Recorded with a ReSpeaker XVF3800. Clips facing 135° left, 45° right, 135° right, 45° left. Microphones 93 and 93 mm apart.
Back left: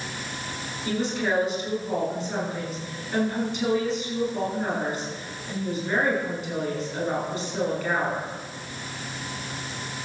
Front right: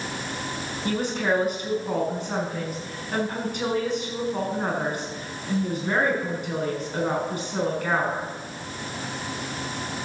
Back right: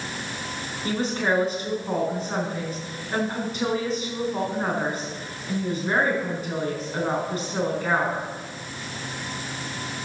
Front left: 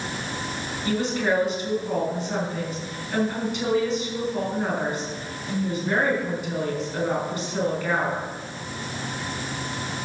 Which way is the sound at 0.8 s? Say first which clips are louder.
Front right 1 dB, front left 1 dB; 85° right.